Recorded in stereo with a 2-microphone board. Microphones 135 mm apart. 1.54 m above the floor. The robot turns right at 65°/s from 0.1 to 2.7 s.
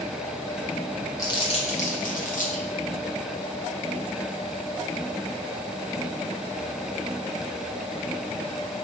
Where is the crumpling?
25° left (ahead or behind), 1.1 m; by 2.6 s 60° left (ahead or behind), 1.1 m.